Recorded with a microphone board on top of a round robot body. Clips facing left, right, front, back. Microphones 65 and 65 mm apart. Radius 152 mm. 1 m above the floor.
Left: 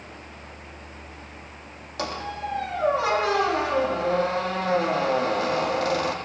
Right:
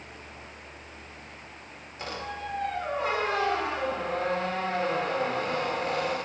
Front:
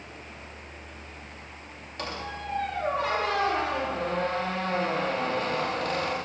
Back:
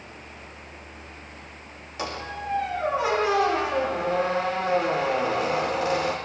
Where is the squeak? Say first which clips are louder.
Left 5 dB, back 3 dB; 95° left, 8.5 m.